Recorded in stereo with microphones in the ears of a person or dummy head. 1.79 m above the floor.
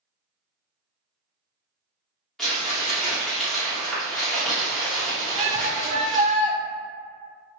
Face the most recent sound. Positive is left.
turn(degrees=-40)  # may be behind; listen again after turning